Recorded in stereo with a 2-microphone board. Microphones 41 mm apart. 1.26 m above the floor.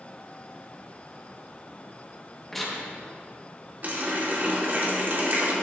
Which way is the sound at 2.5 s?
5° left (ahead or behind).